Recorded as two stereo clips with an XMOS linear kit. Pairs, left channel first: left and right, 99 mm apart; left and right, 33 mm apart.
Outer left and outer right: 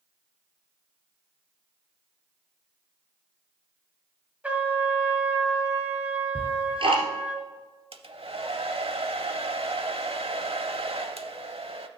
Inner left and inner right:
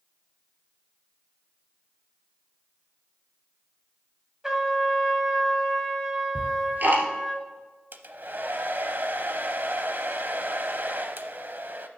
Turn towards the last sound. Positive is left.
turn(degrees=-65)  # may be behind; listen again after turning